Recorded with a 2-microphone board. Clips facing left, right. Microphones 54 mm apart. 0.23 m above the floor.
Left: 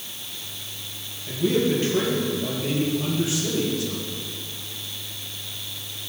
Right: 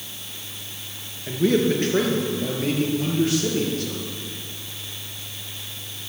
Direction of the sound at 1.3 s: 70° right (ahead or behind).